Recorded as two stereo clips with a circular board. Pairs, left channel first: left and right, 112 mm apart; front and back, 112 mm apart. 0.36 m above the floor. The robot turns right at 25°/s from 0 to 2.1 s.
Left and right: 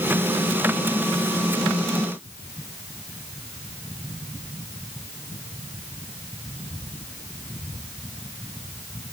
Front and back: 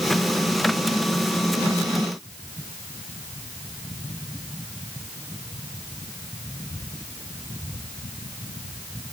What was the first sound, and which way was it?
Only background noise.